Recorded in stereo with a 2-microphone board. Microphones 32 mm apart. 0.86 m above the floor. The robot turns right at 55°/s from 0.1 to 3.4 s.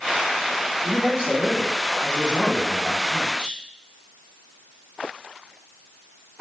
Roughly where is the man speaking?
Right.